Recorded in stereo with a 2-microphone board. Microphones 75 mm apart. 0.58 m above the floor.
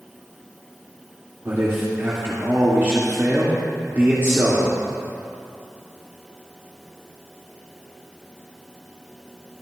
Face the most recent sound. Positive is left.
turn(degrees=-35)  # may be behind; listen again after turning